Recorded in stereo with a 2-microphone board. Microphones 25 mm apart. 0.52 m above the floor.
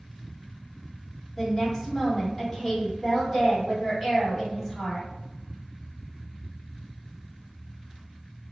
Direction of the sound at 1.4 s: 10° left (ahead or behind).